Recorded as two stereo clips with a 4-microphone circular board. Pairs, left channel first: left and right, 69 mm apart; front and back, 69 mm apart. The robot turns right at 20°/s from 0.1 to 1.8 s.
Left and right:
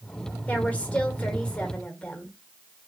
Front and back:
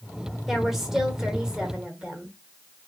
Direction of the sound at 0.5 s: 95° left.